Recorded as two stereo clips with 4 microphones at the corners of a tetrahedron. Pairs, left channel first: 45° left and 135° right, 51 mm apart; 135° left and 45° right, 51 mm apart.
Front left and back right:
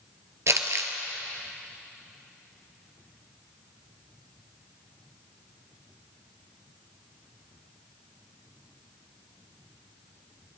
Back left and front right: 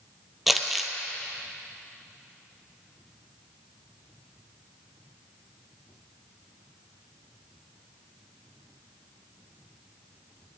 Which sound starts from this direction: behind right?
Crumpling, at 0.5 s.